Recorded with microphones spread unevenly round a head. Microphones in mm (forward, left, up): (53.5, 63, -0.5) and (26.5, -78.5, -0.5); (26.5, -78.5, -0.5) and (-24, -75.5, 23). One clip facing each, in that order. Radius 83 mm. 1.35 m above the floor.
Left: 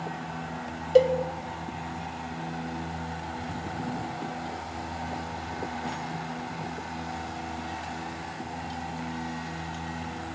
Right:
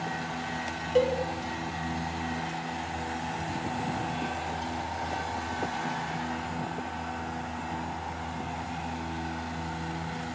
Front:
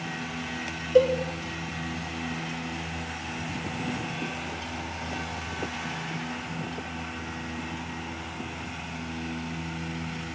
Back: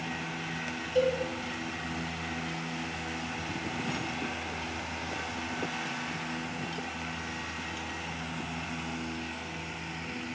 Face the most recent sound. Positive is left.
turn(degrees=30)